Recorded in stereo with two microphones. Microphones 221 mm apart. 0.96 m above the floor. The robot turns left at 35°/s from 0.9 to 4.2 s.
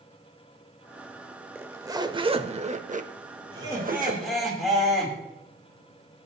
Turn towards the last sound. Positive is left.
turn(degrees=0)  # may be behind; listen again after turning